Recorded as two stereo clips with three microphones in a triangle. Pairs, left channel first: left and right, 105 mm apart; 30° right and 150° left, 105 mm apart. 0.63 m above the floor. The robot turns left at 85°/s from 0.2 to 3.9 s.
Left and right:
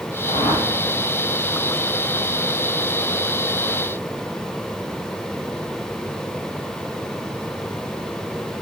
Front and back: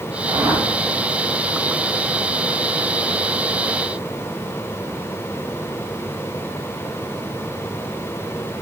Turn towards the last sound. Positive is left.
turn(degrees=150)